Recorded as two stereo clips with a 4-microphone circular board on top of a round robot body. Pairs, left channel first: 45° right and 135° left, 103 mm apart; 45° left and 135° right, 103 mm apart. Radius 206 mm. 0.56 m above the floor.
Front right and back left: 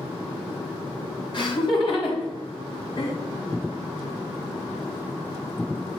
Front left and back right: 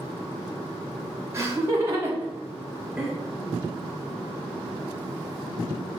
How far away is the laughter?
About 2.5 m.